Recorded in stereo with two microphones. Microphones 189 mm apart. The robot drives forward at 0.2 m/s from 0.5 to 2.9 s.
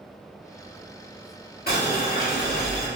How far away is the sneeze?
I don't hear a sneeze.